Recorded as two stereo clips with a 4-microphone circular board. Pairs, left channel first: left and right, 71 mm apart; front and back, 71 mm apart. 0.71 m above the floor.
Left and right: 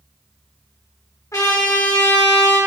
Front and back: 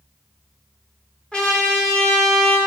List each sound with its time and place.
1.3 s a trumpet: 75° left, 1.7 m